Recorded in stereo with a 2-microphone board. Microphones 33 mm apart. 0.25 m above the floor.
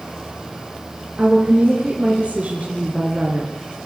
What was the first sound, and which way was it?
A woman speaking, 35° right (ahead or behind).